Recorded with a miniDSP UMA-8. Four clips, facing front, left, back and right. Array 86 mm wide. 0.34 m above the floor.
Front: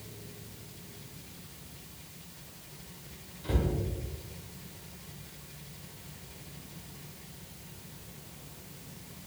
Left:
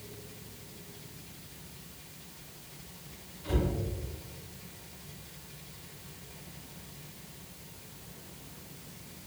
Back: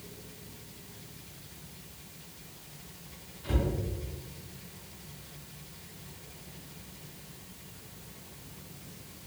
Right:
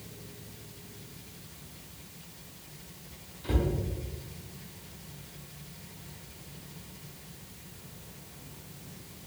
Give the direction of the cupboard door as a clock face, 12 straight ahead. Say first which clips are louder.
Right 1 dB, even; 2 o'clock.